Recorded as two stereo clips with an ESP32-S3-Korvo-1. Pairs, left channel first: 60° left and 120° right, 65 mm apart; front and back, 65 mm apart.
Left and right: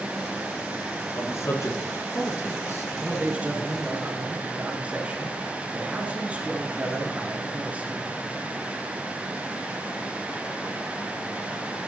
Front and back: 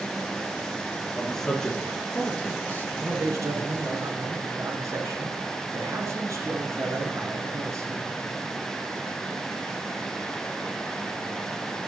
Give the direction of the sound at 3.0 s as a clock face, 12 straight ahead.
6 o'clock.